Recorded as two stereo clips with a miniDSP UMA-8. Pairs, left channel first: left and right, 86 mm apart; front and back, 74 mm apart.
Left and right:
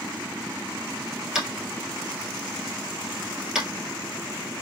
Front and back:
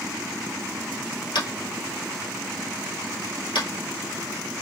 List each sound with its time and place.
1.4 s tapping: 5° right, 1.6 m